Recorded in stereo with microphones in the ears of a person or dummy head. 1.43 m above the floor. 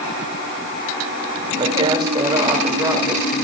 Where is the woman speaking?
35° right (ahead or behind), 2.5 m; by 3.4 s 20° right (ahead or behind), 3.5 m.